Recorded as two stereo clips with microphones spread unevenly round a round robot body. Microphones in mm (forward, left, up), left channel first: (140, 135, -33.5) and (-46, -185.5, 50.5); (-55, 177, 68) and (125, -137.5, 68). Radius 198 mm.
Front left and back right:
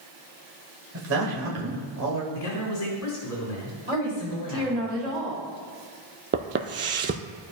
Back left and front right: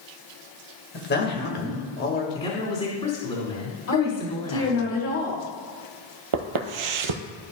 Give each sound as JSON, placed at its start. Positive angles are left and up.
{"t": 0.9, "sound": "a man speaking", "azimuth_deg": 180, "distance_m": 1.7}
{"t": 2.3, "sound": "a man speaking", "azimuth_deg": 50, "distance_m": 2.0}
{"t": 3.9, "sound": "a woman speaking", "azimuth_deg": 165, "distance_m": 2.0}
{"t": 6.3, "sound": "footsteps", "azimuth_deg": -70, "distance_m": 0.7}